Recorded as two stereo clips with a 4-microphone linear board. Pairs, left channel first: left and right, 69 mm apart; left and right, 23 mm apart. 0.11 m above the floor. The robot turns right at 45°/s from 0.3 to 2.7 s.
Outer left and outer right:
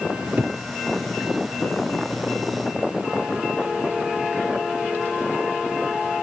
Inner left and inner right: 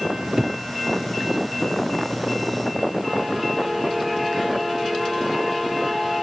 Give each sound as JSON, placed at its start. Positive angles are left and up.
{"t": 0.1, "sound": "a cupboard door", "side_deg": -35, "distance_m": 3.0}